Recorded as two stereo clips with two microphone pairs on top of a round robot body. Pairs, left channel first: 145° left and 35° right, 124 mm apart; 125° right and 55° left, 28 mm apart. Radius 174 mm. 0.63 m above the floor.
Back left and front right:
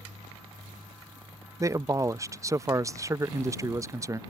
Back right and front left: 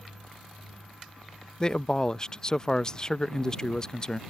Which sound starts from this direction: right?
A man speaking, at 1.6 s.